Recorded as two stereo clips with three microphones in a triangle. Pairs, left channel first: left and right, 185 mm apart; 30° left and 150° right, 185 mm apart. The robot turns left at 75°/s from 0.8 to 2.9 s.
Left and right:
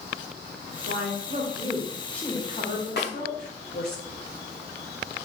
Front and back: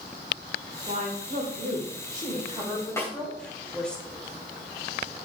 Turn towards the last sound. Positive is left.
turn(degrees=105)